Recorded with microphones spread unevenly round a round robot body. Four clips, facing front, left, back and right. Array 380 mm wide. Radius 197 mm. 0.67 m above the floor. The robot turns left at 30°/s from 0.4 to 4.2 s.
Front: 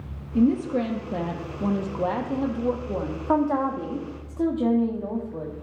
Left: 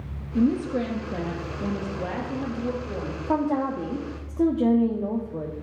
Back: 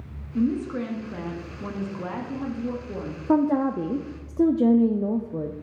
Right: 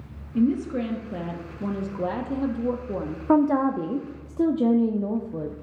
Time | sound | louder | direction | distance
0.3 | a woman speaking | even, front 4 dB | 25° left | 0.9 m
3.3 | a woman speaking | right 5 dB, back 2 dB | 130° right | 0.7 m